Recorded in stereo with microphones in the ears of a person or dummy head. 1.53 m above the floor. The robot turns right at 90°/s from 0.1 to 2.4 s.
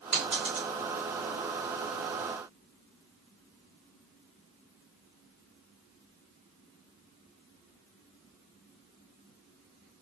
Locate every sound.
0.1 s a dropped coin: 35° right (ahead or behind), 1.8 m; by 0.7 s centre (ahead or behind), 1.8 m